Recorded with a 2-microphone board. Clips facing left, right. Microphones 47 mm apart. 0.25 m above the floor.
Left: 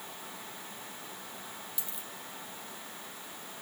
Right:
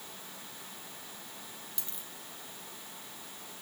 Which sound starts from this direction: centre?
A dropped coin, at 1.8 s.